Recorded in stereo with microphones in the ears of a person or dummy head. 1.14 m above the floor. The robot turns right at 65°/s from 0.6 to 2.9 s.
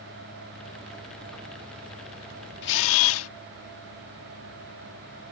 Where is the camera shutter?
60° left (ahead or behind); by 3.3 s 80° left.